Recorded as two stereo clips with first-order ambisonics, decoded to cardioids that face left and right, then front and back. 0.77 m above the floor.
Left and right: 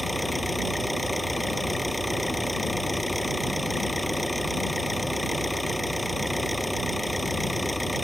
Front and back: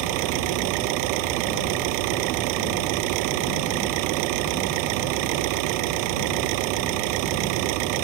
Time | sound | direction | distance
0.0 | an engine running | straight behind | ?